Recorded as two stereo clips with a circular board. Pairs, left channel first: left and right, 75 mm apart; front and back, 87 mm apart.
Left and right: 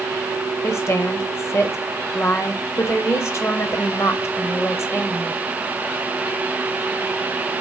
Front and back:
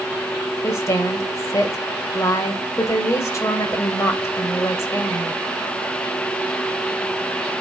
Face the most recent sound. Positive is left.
turn(degrees=45)